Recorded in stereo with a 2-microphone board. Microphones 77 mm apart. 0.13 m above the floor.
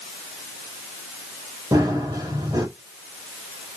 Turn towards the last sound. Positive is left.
turn(degrees=-45)  # may be behind; listen again after turning